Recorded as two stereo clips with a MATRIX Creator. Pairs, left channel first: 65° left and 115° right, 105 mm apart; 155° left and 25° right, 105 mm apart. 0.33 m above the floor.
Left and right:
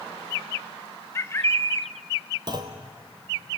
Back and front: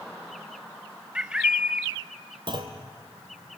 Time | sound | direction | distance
1.1 | a bird | 50° left | 0.6 m
2.5 | a clunk | 65° right | 1.9 m